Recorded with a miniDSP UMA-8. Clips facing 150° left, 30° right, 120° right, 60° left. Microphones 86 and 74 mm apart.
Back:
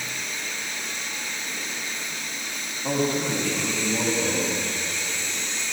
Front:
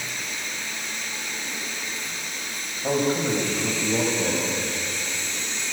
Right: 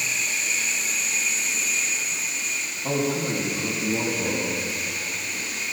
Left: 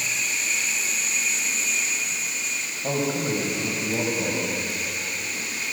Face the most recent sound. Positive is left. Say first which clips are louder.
# front 2 dB, even
turn(degrees=20)